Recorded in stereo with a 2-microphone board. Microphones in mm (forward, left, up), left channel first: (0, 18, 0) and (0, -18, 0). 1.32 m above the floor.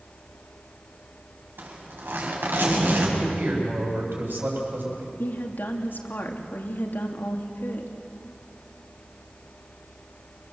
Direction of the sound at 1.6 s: 80° right.